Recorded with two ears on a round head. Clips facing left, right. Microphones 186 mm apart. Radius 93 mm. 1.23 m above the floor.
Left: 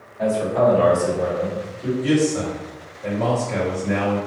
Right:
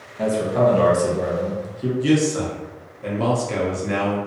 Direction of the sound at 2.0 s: 45° right (ahead or behind).